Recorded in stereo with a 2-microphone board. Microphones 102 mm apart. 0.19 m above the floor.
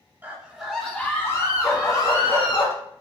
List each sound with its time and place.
0.2 s a scream: 15° right (ahead or behind), 1.0 m; by 2.6 s 50° left (ahead or behind), 1.6 m
1.6 s a dog barking: 25° left (ahead or behind), 0.6 m